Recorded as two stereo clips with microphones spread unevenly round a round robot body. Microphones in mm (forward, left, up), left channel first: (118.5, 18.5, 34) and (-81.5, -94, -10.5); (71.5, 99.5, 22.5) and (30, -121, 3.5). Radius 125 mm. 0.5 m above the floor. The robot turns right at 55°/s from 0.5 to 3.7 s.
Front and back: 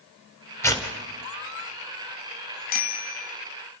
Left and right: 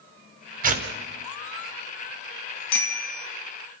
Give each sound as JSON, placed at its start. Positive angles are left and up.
{"t": 0.6, "sound": "tearing paper", "azimuth_deg": -55, "distance_m": 3.5}
{"t": 2.7, "sound": "a bicycle bell", "azimuth_deg": 85, "distance_m": 3.0}